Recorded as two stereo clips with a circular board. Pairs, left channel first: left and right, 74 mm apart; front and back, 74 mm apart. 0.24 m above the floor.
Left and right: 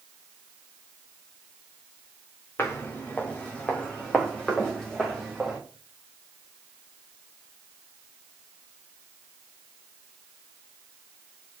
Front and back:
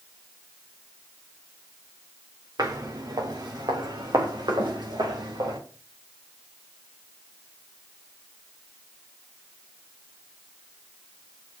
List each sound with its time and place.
2.6 s footsteps: 150° left, 2.5 m; by 5.6 s 175° left, 4 m